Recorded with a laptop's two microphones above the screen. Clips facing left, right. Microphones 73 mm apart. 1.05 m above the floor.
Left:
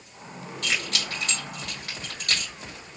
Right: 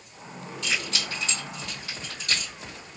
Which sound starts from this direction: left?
Keys jangling, at 0.6 s.